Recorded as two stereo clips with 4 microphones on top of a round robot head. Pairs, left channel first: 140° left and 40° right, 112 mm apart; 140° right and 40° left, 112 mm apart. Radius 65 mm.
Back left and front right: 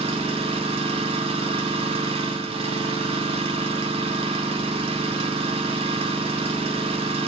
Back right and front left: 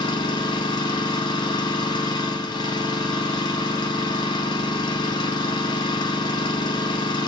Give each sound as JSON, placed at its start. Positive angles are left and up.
{"t": 0.0, "sound": "an engine running", "azimuth_deg": -85, "distance_m": 0.8}